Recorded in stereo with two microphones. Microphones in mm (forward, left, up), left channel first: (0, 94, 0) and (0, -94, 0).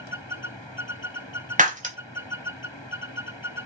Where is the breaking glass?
45° right (ahead or behind), 0.8 m.